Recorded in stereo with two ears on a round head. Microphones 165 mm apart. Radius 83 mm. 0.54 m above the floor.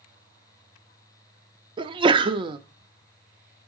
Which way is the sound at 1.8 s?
25° right (ahead or behind).